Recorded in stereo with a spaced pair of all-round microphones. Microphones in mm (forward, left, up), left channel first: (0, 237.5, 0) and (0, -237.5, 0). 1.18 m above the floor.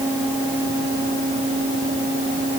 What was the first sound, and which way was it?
Only background noise.